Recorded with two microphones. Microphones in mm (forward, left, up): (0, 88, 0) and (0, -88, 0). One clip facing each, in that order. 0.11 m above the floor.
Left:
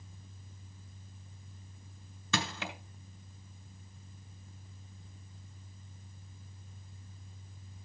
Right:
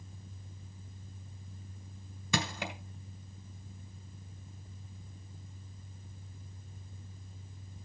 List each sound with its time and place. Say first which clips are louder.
2.3 s crushing: right 1 dB; 15° right (ahead or behind), 1.5 m